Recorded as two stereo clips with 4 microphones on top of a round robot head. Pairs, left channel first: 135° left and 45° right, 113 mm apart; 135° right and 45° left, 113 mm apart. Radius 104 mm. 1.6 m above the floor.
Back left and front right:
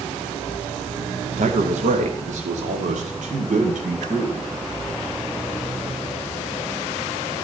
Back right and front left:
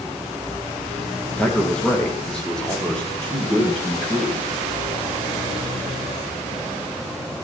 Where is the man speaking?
55° right, 1.1 m.